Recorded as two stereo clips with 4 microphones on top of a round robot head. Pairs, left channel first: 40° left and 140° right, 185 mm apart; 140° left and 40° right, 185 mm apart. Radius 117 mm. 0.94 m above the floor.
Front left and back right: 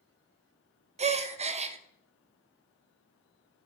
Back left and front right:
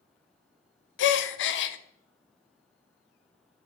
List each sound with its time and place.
1.0 s a gasp: 160° left, 0.6 m